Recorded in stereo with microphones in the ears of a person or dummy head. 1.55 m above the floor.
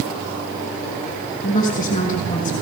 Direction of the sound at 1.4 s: 45° left (ahead or behind).